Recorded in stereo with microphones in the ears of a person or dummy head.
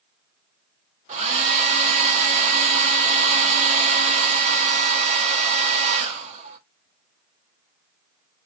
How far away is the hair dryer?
About 1.0 m.